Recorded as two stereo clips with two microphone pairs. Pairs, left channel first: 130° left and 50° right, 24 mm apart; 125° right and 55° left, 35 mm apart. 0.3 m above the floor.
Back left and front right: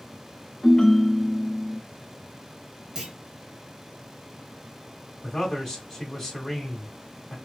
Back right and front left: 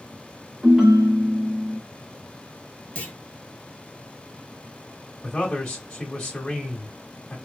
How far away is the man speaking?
About 1.0 m.